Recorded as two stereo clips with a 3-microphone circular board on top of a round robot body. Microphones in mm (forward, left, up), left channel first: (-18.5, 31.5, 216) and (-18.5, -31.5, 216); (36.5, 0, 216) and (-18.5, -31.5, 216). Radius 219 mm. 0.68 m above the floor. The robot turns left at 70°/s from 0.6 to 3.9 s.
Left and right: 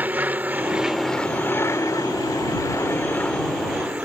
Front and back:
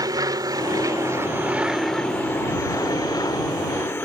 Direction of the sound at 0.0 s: 150° right.